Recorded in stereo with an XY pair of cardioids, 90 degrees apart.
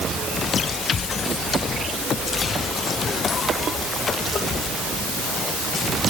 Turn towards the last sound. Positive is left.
No sound to turn to.